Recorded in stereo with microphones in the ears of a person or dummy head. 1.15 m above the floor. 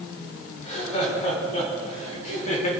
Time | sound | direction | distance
0.6 | laughter | 30° left (ahead or behind) | 5 m